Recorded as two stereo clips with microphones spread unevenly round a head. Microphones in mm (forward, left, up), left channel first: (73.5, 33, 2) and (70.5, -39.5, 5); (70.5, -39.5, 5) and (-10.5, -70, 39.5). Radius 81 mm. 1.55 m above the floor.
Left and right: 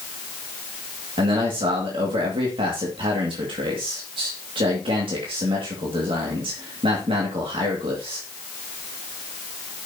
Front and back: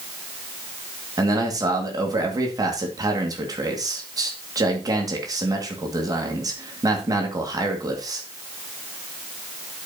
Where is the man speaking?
115° right, 2.0 m.